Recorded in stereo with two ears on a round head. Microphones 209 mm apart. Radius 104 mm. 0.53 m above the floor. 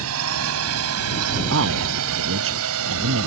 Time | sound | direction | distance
0.0 | a drone | 70° right (ahead or behind) | ?
1.5 | a man speaking | 60° right (ahead or behind) | ?